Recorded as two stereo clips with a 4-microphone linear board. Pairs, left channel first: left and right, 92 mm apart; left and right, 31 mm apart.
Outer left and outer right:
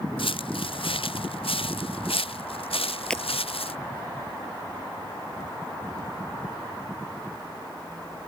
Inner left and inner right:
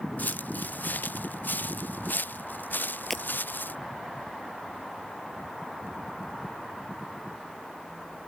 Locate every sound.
0.2 s footsteps: 70° left (ahead or behind); by 3.8 s 80° left
3.1 s breaking glass: 10° left (ahead or behind)